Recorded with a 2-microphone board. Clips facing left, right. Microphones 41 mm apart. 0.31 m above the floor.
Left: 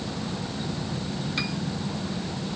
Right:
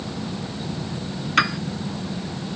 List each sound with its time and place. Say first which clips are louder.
1.4 s a piano: right 13 dB; 75° right (ahead or behind)